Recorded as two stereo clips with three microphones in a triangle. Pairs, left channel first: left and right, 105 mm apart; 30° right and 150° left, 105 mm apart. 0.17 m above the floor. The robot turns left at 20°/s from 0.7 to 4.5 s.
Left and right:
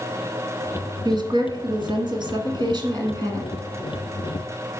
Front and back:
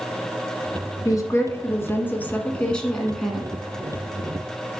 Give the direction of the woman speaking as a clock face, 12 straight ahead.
2 o'clock.